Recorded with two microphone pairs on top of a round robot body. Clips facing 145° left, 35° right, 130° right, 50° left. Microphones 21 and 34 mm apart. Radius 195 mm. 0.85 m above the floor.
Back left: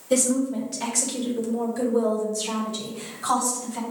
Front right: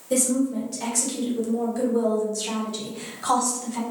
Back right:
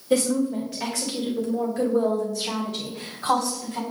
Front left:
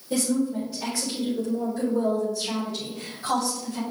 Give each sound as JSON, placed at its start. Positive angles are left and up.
{"t": 0.1, "sound": "a woman speaking", "azimuth_deg": -140, "distance_m": 2.5}